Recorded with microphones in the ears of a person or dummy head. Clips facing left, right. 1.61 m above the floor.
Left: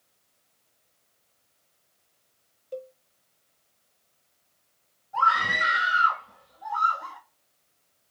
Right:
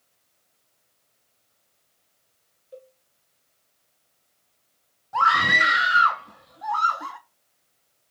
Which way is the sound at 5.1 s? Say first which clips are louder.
Right 3 dB; 80° right.